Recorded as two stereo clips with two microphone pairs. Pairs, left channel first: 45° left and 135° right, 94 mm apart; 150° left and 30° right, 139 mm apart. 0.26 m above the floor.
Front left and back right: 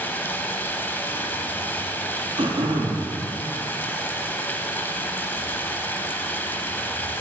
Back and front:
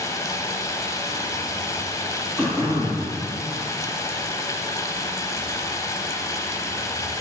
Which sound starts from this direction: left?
Running water, at 0.0 s.